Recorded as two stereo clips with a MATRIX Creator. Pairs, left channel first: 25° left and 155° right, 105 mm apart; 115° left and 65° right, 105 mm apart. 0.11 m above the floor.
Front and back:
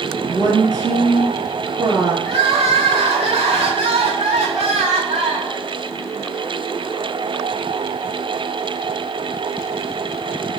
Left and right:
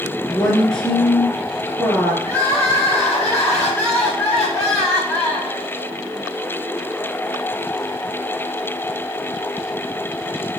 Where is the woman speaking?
165° right, 1.9 m.